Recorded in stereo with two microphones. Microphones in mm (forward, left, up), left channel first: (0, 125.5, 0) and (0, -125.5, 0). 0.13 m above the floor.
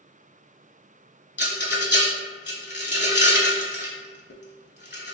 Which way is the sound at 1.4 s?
45° left (ahead or behind).